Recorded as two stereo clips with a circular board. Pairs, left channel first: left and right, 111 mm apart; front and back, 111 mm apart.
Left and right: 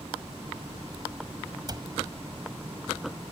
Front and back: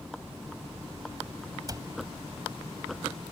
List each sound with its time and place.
1.7 s a cupboard door: 130° right